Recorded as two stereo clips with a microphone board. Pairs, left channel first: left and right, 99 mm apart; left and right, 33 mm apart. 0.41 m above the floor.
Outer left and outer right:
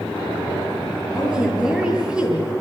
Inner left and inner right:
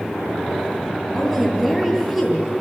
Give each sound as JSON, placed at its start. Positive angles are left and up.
{"t": 1.1, "sound": "a woman speaking", "side_deg": -5, "distance_m": 9.5}